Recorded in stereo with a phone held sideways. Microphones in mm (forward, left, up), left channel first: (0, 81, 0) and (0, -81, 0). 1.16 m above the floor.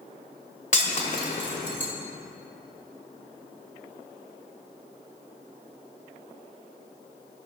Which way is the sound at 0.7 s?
50° left (ahead or behind).